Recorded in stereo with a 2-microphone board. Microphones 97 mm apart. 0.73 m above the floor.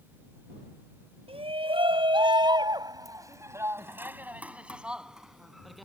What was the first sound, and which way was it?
A shout, 75° right (ahead or behind).